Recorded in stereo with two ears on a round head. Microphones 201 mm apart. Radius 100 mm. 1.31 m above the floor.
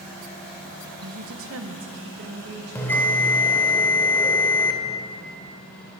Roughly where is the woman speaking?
Right.